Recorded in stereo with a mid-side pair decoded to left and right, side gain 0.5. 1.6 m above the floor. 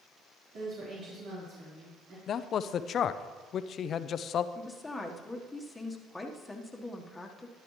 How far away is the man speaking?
About 0.5 m.